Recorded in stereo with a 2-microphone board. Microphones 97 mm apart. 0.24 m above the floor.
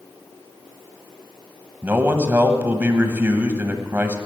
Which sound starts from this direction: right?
A man speaking, at 1.8 s.